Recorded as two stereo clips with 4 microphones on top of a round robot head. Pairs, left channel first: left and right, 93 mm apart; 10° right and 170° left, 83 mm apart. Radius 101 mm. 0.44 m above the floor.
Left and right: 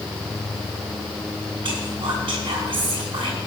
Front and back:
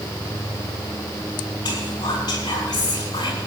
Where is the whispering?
50° right, 6 m.